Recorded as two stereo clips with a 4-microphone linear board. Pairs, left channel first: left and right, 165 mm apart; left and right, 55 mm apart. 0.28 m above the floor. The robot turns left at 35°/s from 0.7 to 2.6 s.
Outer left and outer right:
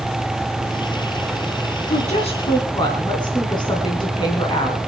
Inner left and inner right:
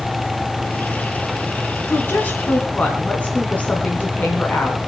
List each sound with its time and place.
1.9 s a woman speaking: 50° left (ahead or behind), 3 m; by 4.8 s 25° left (ahead or behind), 3 m